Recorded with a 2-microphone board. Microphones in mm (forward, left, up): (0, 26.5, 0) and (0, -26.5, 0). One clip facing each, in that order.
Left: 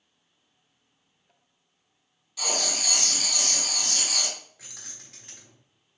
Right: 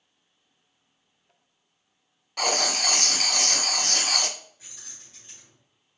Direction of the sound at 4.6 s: 85° left.